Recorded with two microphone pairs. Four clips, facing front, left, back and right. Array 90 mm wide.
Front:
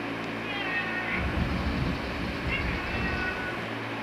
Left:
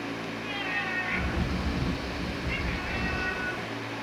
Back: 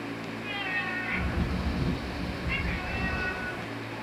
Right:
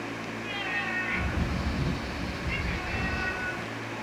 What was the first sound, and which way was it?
A bird, 60° left.